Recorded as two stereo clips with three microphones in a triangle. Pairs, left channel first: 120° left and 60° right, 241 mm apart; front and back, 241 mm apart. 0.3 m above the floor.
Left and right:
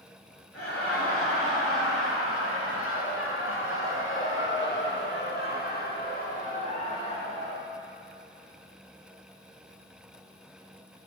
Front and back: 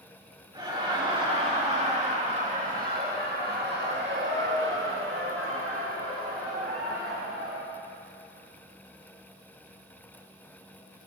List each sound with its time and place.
0.5 s laughter: 110° left, 5 m; by 7.6 s 175° right, 4.5 m